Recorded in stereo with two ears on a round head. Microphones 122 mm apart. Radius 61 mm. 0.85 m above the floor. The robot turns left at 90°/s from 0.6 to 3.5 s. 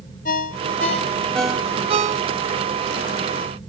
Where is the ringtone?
65° left (ahead or behind), 0.8 m; by 2.6 s 60° right (ahead or behind), 0.8 m.